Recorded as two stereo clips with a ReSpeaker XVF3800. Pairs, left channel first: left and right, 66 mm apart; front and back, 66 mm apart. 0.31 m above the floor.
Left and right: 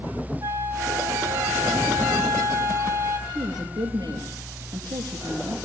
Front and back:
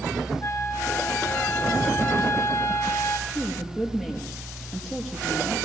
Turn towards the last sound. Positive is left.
turn(degrees=-95)